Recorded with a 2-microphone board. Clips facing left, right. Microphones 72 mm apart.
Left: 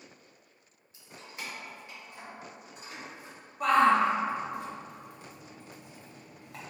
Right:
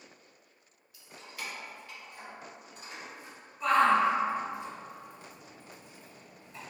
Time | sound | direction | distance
0.9 | keys jangling | 30° left (ahead or behind) | 0.6 m
3.6 | a shout | 60° left (ahead or behind) | 0.9 m